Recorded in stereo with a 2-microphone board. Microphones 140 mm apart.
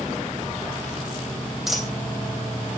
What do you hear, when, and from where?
1.7 s a dropped coin: 5° right (ahead or behind), 3 m